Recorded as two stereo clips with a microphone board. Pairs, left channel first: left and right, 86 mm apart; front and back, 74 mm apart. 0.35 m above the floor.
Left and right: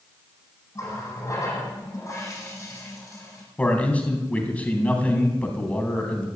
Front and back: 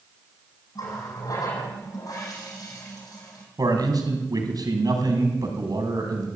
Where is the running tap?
35° left, 8.5 m.